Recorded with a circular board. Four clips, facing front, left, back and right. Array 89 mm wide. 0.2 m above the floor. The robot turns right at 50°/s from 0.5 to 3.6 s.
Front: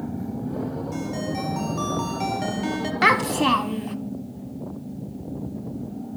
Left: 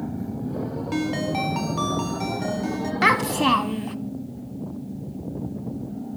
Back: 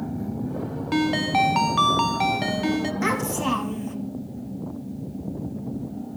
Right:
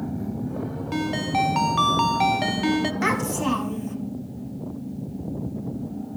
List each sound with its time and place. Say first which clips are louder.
0.9 s a ringtone: right 1 dB, back 6 dB; 170° left, 0.9 m; by 2.9 s 90° right, 0.9 m
3.0 s a child speaking: left 4 dB, front 5 dB; 35° left, 0.8 m; by 4.0 s 65° left, 0.8 m